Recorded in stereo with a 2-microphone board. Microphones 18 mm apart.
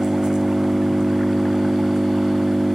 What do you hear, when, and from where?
0.0 s an engine running: 40° right (ahead or behind)